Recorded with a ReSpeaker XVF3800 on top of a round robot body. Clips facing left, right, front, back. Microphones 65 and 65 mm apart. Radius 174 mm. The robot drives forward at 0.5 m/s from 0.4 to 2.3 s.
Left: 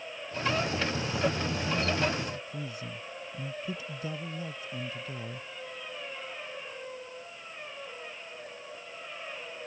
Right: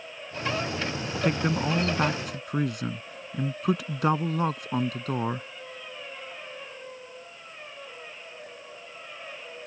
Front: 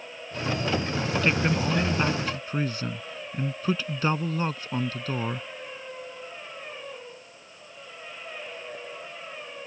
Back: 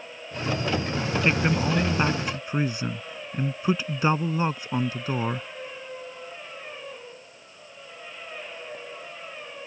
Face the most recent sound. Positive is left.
turn(degrees=-110)